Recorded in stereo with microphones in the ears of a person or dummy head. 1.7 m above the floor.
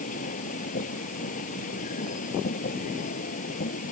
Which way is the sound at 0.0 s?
45° left (ahead or behind).